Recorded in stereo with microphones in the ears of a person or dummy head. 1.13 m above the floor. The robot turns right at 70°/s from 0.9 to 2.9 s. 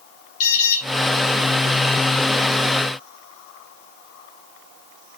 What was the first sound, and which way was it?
An alarm, 45° left (ahead or behind).